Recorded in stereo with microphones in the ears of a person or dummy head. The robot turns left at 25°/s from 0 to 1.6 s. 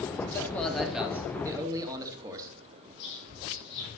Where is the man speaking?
10° left, 2.5 m; by 2.5 s 20° right, 2.5 m.